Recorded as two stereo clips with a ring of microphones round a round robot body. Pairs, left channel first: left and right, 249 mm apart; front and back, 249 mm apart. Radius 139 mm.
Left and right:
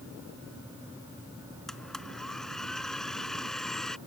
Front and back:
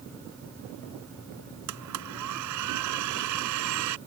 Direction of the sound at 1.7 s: Straight behind.